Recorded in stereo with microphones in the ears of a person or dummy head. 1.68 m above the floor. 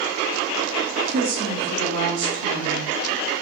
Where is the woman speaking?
60° right (ahead or behind), 0.8 m.